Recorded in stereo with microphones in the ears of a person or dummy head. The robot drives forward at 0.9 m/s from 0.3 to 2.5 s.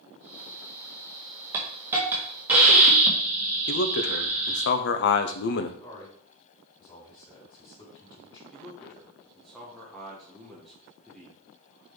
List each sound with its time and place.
1.5 s a hiss: 5° right (ahead or behind), 0.9 m
3.7 s a man speaking: 65° left (ahead or behind), 0.8 m
5.8 s a man speaking: 20° left (ahead or behind), 2.5 m
8.5 s a man speaking: 5° left (ahead or behind), 1.1 m